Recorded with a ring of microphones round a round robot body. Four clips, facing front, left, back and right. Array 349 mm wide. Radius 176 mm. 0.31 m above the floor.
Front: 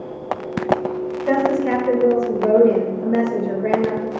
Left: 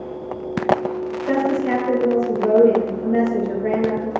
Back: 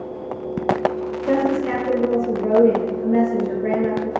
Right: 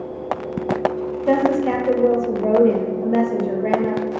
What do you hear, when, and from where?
1.3 s a woman speaking: 60° right, 1.4 m